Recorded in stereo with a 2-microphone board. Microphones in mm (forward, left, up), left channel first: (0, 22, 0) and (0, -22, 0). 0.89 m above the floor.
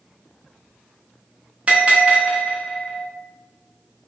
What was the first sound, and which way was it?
A bell, 30° right (ahead or behind).